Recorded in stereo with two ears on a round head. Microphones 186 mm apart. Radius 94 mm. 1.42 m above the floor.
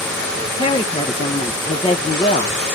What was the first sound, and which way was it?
A woman speaking, 20° left (ahead or behind).